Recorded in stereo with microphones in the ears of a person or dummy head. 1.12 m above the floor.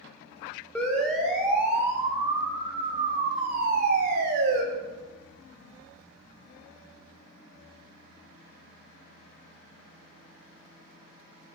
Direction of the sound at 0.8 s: Centre (ahead or behind).